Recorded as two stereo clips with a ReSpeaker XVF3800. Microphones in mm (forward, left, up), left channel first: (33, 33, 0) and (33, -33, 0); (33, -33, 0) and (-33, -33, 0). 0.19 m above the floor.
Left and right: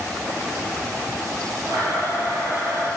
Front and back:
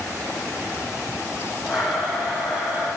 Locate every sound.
1.7 s a blender: 110° right, 3.5 m